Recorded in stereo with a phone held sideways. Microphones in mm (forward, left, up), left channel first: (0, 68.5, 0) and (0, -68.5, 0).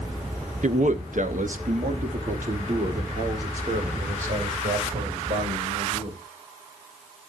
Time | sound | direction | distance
0.6 | a man speaking | 60° right (ahead or behind) | 0.6 m